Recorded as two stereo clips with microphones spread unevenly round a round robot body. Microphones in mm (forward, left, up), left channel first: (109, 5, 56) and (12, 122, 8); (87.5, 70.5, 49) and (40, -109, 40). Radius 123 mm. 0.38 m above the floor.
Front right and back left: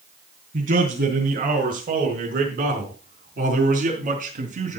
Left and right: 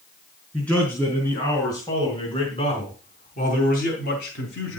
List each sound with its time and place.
0.5 s a man speaking: 160° left, 5.5 m; by 4.8 s 110° left, 4 m